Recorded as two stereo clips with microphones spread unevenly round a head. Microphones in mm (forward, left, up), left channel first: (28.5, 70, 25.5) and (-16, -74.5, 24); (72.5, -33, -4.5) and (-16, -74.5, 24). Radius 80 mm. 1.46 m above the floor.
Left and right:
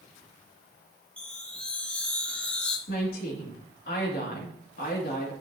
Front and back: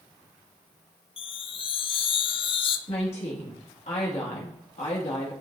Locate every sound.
1.2 s a chime: 10° right, 0.6 m
2.9 s a woman speaking: 45° left, 2.5 m